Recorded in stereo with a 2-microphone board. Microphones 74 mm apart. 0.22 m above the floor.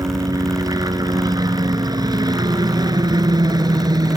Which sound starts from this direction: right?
A helicopter, at 0.0 s.